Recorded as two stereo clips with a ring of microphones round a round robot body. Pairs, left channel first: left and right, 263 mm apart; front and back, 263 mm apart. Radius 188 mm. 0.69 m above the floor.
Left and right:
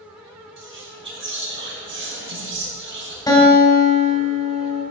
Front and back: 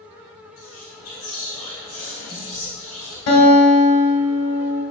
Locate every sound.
0.6 s whispering: 50° right, 4 m
3.3 s a guitar: 15° left, 3 m